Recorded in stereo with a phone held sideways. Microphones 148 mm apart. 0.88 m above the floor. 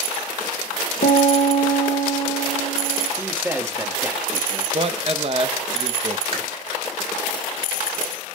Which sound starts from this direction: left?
A piano, at 1.0 s.